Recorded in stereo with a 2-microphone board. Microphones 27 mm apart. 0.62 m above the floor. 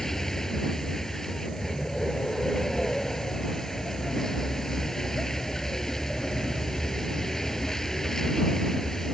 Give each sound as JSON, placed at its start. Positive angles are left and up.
{"t": 0.0, "sound": "a vehicle", "side_deg": 15}